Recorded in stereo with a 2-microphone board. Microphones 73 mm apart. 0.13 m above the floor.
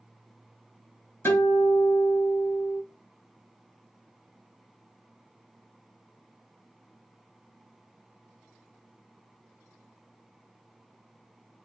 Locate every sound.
1.2 s a guitar: 40° left (ahead or behind), 2.5 m